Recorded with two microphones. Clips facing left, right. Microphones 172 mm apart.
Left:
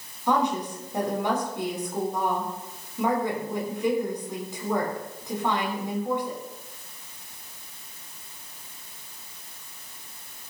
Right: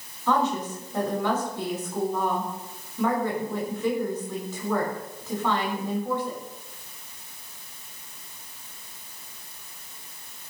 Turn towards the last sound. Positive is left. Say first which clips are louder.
# even
turn(degrees=15)  # may be behind; listen again after turning